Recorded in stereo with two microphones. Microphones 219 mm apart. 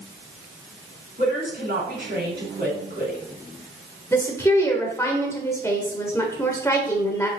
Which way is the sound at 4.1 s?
10° left (ahead or behind).